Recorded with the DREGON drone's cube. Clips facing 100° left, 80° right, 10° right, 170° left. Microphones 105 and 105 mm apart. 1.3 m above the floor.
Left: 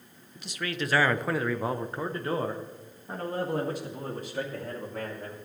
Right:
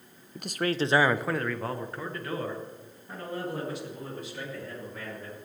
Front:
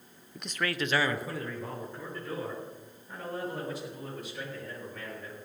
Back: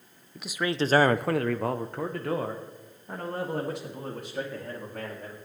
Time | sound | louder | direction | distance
0.3 | a man speaking | right 6 dB, back 5 dB | 100° right | 0.7 m